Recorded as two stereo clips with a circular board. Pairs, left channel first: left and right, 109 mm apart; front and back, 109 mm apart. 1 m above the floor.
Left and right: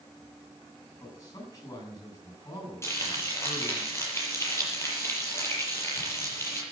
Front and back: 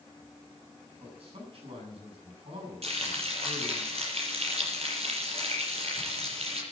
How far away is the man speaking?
About 8.5 m.